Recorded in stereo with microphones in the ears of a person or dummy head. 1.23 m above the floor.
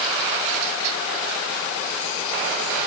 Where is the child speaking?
No child speaking in this recording.